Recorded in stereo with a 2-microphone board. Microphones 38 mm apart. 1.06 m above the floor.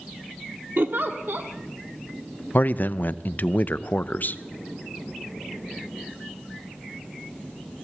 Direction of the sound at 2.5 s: 50° left (ahead or behind).